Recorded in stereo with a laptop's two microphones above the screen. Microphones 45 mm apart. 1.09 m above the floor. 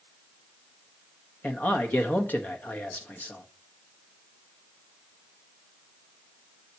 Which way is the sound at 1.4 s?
40° left (ahead or behind).